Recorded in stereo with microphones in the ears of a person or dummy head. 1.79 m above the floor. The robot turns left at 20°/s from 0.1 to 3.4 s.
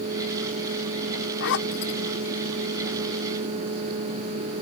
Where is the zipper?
70° left (ahead or behind); by 1.9 s 80° left.